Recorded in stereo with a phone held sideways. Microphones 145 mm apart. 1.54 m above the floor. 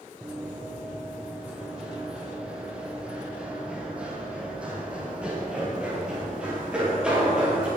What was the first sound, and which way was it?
Running footsteps, 5° right (ahead or behind).